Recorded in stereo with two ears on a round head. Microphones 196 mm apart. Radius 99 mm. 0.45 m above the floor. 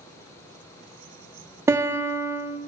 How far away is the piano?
About 0.9 m.